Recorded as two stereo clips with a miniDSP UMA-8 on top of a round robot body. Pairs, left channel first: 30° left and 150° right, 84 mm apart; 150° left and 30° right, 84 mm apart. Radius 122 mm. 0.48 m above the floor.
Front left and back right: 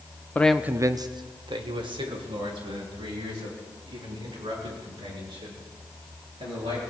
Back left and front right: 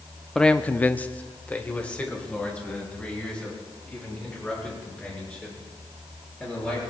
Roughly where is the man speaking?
Left.